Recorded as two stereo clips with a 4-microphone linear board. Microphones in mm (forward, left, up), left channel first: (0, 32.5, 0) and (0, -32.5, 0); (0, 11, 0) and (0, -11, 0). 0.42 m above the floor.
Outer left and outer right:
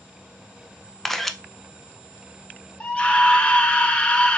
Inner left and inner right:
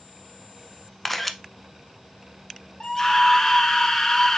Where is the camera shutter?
5° left (ahead or behind), 0.6 m.